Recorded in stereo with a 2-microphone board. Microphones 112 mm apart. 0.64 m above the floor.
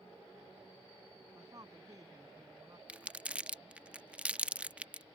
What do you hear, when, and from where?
1.4 s a woman speaking: 35° right (ahead or behind)
2.9 s crumpling: 10° right (ahead or behind)